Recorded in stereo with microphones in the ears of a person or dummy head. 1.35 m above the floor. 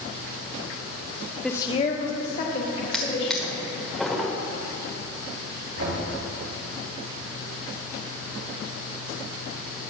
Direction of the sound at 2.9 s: Centre (ahead or behind).